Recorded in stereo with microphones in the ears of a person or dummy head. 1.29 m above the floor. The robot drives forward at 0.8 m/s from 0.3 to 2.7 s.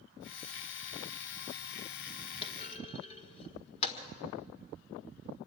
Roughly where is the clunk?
Left.